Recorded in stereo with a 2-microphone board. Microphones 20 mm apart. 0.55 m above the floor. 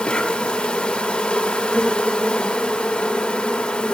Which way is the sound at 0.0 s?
65° left (ahead or behind).